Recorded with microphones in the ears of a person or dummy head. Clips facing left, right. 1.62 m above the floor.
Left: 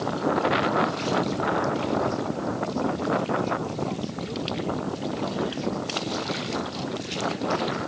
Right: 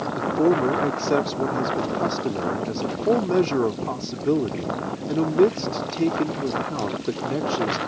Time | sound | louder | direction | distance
0.2 | a man speaking | right 6 dB | 75° right (ahead or behind) | ?